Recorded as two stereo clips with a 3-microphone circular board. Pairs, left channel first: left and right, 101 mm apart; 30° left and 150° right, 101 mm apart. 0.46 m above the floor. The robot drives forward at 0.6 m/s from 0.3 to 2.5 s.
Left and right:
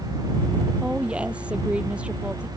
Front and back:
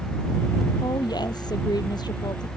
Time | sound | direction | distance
0.8 | a woman speaking | 10° right | ?